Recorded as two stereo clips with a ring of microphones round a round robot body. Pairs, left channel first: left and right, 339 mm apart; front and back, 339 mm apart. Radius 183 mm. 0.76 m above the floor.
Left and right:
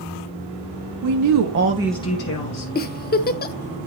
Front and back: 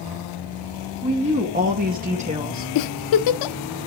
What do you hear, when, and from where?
1.0 s a woman speaking: 110° right, 1.4 m; by 2.6 s 105° left, 1.2 m
2.8 s a giggle: 25° left, 0.5 m